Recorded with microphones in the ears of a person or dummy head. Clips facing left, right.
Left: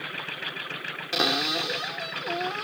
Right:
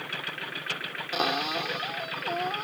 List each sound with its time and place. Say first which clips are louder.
1.1 s a cupboard door: left 2 dB; 30° left (ahead or behind)